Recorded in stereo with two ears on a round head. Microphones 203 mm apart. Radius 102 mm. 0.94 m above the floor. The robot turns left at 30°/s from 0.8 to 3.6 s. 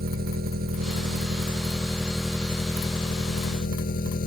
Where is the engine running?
135° right; by 4.3 s 140° left.